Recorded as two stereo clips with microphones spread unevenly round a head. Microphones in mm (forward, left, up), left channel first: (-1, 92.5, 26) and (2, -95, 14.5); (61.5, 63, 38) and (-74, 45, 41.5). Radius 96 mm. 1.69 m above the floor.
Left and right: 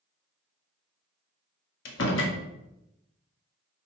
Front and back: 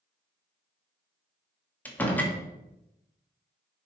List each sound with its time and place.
1.9 s a door slam: 85° left, 2.0 m